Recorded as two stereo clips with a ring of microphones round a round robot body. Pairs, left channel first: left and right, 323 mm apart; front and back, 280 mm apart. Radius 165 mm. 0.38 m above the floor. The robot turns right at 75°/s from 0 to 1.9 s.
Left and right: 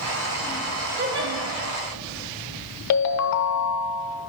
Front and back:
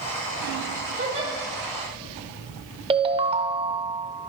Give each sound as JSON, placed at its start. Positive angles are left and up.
{"t": 1.0, "sound": "a giggle", "azimuth_deg": -135, "distance_m": 1.6}
{"t": 2.9, "sound": "a ringtone", "azimuth_deg": 110, "distance_m": 0.7}